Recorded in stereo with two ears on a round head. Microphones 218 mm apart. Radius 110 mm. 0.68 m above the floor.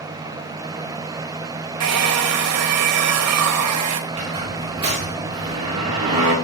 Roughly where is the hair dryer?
Right.